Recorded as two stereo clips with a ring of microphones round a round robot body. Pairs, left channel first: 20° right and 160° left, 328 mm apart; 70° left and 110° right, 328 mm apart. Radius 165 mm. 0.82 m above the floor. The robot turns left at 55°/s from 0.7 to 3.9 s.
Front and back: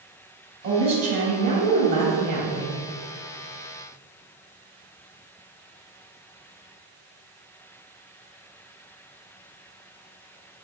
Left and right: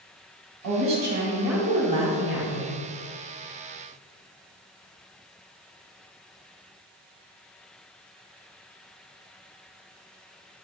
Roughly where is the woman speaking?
Behind right.